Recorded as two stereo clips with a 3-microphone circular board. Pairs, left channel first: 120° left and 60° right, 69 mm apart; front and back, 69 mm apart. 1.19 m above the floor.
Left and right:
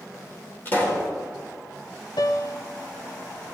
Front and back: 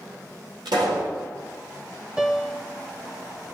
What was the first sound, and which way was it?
A pop, straight behind.